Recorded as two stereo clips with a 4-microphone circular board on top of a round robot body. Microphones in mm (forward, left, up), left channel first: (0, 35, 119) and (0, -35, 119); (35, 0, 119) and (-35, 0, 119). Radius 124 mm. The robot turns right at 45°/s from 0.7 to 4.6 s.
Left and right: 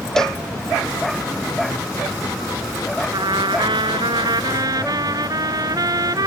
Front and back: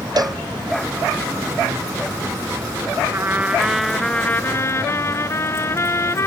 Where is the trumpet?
120° right; by 6.3 s 55° right.